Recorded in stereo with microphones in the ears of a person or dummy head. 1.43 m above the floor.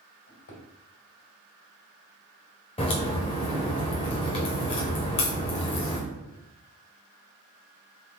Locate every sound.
0.3 s a drawer: 60° left (ahead or behind), 2 m
2.8 s a crack: 25° left (ahead or behind), 0.9 m